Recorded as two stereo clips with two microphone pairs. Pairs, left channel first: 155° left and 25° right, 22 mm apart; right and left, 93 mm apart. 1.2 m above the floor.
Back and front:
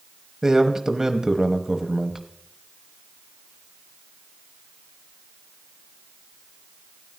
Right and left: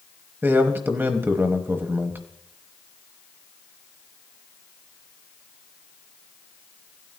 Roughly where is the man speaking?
Ahead left.